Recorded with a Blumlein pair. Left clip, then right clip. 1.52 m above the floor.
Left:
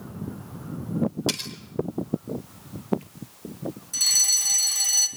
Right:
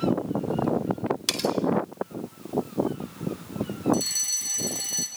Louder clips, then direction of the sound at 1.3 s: Right 7 dB; 15° right.